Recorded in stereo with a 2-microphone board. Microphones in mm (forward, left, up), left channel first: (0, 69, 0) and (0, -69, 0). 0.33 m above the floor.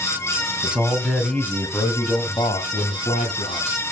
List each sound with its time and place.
0.6 s a man speaking: 10° right (ahead or behind), 2.5 m; by 3.8 s 65° left (ahead or behind), 3 m